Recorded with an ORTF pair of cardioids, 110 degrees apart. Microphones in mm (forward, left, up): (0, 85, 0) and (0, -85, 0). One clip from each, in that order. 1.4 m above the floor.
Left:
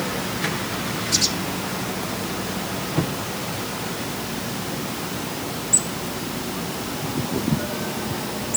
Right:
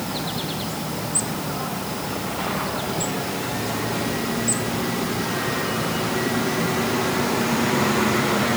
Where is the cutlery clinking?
I don't hear cutlery clinking.